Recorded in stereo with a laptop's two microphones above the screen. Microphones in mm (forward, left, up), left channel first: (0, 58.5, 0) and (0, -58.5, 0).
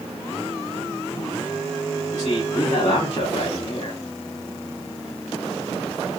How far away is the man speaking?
About 3 m.